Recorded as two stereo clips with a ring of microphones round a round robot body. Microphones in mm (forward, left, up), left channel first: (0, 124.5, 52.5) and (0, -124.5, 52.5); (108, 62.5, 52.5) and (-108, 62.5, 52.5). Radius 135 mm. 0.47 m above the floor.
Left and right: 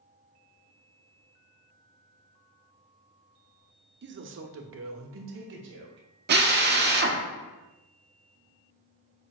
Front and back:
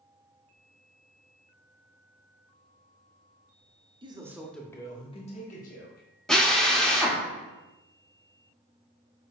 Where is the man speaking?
120° right, 1.0 m; by 6.1 s 50° right, 2 m.